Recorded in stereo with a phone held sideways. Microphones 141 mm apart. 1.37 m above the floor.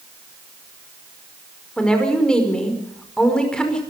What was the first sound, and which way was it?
A woman speaking, 5° left (ahead or behind).